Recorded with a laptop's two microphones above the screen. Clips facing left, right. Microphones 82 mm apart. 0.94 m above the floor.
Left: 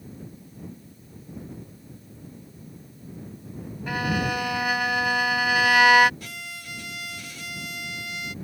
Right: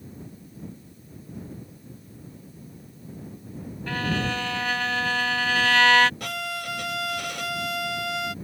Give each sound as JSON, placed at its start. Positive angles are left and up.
{"t": 3.9, "sound": "a violin", "side_deg": 15}
{"t": 6.2, "sound": "a violin", "side_deg": -70}